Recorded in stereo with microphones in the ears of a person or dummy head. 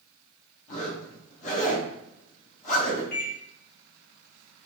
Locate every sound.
0.7 s a zipper: 45° left (ahead or behind), 1.0 m
3.1 s a microwave: 55° left (ahead or behind), 1.3 m